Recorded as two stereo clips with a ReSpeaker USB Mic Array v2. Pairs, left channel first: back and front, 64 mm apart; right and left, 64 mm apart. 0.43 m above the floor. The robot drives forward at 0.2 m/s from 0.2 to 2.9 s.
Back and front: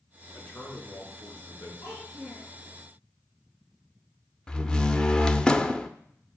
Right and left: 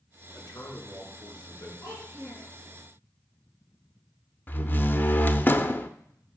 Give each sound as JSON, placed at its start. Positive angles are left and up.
{"t": 0.3, "sound": "a man speaking", "azimuth_deg": -115, "distance_m": 4.5}
{"t": 1.8, "sound": "a child speaking", "azimuth_deg": -125, "distance_m": 4.0}
{"t": 4.5, "sound": "a door slam", "azimuth_deg": -115, "distance_m": 0.5}